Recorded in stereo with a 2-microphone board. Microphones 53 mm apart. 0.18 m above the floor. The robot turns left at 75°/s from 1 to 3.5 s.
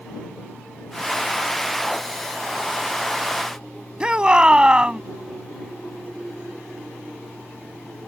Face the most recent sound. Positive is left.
turn(degrees=-20)  # may be behind; listen again after turning